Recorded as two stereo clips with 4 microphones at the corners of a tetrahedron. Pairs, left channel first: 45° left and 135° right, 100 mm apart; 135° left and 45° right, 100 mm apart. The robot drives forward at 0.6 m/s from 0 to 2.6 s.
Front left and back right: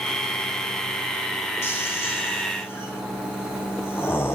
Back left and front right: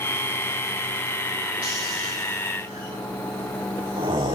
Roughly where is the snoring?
Ahead.